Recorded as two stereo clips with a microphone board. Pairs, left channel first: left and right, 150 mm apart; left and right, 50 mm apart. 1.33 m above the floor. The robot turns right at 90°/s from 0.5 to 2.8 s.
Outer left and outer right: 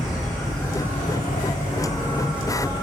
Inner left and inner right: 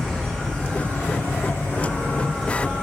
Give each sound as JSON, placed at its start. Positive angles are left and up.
{"t": 0.0, "sound": "an insect", "azimuth_deg": 0, "distance_m": 5.0}